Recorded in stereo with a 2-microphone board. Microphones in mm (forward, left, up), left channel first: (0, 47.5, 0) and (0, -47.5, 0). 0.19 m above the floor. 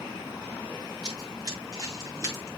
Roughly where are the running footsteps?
Right.